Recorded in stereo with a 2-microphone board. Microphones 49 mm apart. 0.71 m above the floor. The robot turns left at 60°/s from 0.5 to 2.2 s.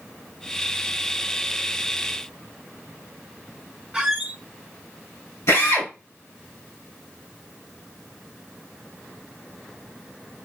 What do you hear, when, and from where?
3.9 s a squeak: 15° right (ahead or behind), 1.0 m
5.5 s a drill: 70° left (ahead or behind), 2.5 m